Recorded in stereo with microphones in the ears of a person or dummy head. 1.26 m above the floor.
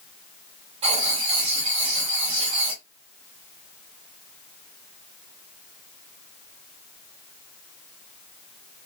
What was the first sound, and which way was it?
Writing, 25° right (ahead or behind).